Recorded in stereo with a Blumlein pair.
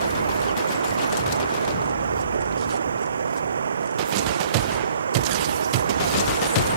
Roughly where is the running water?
Right.